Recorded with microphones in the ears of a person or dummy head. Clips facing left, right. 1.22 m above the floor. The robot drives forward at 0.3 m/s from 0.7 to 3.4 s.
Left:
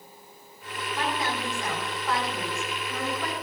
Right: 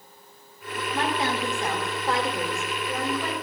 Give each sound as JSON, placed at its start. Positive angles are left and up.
{"t": 0.9, "sound": "a woman speaking", "side_deg": -35, "distance_m": 4.0}